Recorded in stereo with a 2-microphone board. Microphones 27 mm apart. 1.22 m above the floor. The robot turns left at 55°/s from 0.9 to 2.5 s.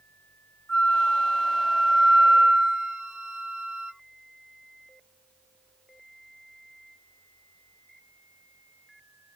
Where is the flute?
40° left, 3.5 m; by 3.9 s 50° right, 3.5 m.